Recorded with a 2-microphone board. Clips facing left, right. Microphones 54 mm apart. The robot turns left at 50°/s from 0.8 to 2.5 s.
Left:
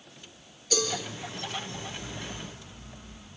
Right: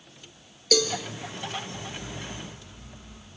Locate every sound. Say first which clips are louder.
0.7 s a cowbell: right 5 dB; 65° right (ahead or behind), 3.5 m; by 0.9 s 70° right (ahead or behind), 3.5 m